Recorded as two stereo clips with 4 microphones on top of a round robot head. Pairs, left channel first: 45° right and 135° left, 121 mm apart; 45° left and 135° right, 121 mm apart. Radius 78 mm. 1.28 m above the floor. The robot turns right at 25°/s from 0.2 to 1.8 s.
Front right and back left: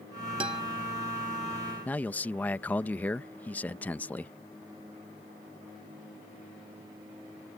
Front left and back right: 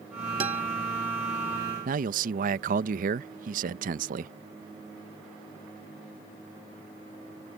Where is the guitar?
175° right; by 0.6 s 170° right.